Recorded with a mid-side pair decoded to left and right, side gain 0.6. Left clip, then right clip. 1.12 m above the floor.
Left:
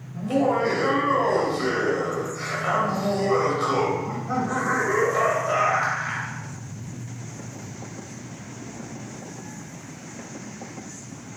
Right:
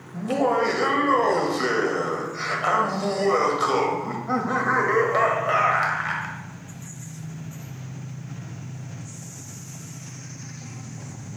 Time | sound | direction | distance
0.1 | laughter | 40° right | 1.0 m